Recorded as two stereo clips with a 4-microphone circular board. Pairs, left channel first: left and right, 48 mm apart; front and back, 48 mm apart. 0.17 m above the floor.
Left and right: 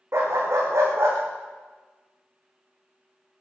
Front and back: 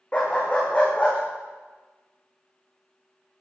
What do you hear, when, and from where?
0.1 s a dog barking: 65° right, 4.5 m